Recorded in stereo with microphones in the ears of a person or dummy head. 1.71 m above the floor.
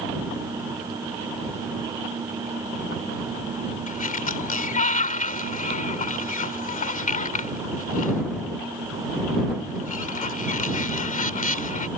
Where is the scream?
No scream in this recording.